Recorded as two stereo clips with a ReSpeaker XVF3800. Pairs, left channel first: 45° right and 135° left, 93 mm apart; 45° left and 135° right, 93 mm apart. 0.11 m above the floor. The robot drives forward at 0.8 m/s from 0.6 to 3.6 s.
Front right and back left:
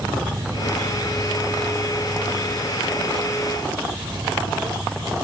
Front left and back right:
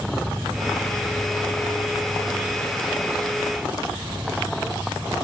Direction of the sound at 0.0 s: 165° left.